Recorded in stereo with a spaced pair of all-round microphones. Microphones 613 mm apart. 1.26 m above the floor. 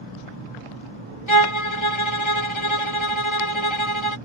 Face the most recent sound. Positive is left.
turn(degrees=50)  # may be behind; listen again after turning